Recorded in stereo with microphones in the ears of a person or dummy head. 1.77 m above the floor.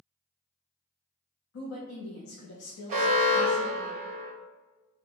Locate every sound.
1.5 s a woman speaking: 85° left, 0.9 m
2.9 s an alarm: 40° right (ahead or behind), 1.5 m